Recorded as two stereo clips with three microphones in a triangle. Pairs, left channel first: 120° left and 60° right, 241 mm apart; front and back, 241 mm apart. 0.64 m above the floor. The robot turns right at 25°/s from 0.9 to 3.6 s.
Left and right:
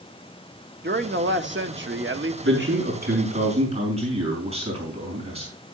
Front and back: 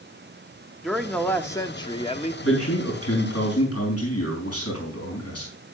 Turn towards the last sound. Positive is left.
turn(degrees=5)